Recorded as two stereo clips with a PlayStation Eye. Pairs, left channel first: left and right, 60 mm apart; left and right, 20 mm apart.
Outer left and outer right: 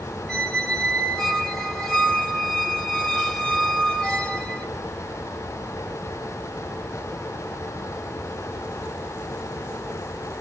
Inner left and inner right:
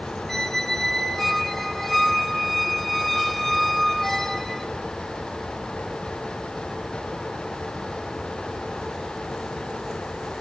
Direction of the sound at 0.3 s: 10° left (ahead or behind).